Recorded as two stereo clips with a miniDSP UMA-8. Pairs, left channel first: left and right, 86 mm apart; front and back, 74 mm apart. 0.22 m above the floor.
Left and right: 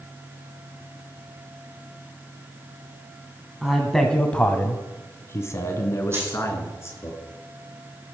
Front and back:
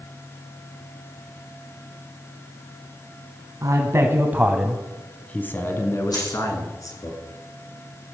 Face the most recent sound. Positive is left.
turn(degrees=-30)